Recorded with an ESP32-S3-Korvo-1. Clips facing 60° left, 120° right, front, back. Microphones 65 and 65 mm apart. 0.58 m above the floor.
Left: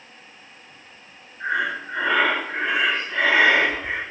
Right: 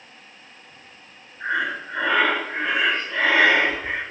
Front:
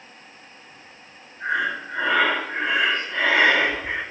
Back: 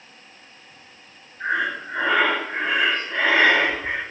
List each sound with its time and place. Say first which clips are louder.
1.4 s breathing: even, even; 130° left, 1.2 m